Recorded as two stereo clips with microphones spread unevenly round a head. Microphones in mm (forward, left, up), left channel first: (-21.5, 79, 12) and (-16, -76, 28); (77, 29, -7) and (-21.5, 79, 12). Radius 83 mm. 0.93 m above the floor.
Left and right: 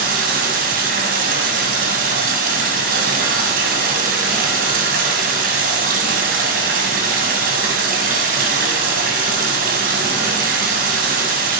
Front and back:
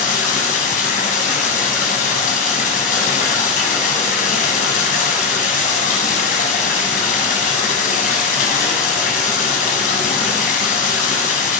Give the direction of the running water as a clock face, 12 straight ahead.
2 o'clock.